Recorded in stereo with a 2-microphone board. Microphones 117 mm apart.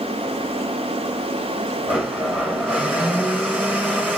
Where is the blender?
10° right (ahead or behind), 1.9 m.